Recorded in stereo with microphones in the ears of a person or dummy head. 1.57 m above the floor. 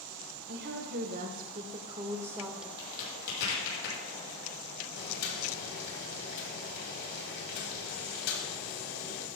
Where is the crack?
65° left (ahead or behind), 6.5 m.